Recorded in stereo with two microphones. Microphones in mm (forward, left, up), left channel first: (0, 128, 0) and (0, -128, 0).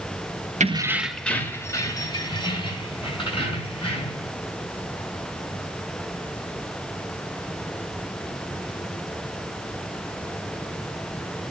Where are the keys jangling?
30° right (ahead or behind), 0.8 m; by 4.3 s 20° left (ahead or behind), 6 m.